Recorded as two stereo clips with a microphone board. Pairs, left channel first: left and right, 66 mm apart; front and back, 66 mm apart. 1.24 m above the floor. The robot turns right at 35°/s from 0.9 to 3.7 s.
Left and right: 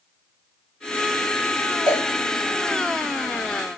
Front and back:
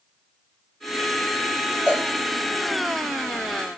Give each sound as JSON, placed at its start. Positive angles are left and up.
{"t": 1.9, "sound": "a cowbell", "azimuth_deg": -110, "distance_m": 1.6}